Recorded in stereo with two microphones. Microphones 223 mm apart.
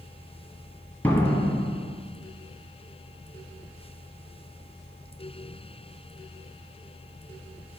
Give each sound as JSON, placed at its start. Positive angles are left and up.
{"t": 1.0, "sound": "a door slam", "side_deg": 10, "distance_m": 1.7}